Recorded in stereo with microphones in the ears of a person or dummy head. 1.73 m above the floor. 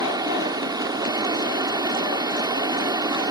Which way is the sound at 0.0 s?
25° right (ahead or behind).